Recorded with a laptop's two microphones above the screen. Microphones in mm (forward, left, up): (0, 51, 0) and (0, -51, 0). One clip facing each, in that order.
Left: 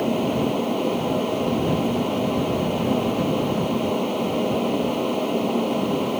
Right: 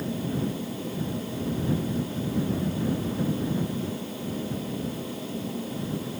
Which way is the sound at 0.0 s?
75° left (ahead or behind).